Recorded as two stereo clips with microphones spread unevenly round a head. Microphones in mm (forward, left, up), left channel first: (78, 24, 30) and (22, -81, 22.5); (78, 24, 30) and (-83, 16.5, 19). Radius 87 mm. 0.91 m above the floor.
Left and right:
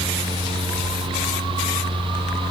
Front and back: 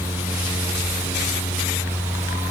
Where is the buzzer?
No buzzer in this recording.